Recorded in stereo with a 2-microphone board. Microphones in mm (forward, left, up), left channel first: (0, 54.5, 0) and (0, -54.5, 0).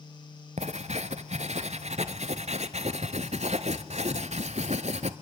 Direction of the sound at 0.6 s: 75° right (ahead or behind).